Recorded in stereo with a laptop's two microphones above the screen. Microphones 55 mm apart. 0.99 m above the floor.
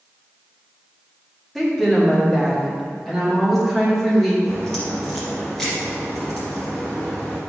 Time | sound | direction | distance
1.6 | a woman speaking | 5° left (ahead or behind) | 1.7 m
4.5 | a crack | 10° left (ahead or behind) | 2.5 m